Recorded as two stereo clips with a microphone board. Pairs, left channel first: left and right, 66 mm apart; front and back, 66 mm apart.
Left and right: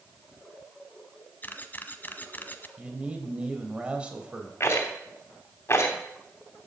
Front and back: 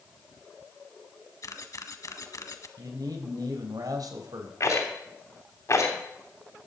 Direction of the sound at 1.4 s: 30° left.